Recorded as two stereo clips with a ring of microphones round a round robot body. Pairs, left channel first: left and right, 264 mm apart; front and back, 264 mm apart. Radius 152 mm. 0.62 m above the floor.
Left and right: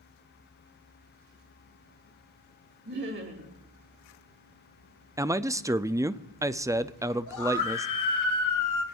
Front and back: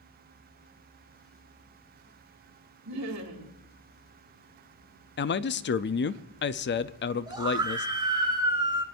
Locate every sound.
2.9 s laughter: 145° right, 4 m
5.2 s a man speaking: 15° right, 0.7 m
7.3 s a scream: 105° left, 4 m